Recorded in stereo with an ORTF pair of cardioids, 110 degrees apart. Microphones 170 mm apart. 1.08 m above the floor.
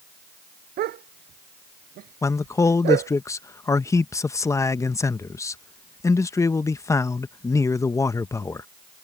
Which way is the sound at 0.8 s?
70° right.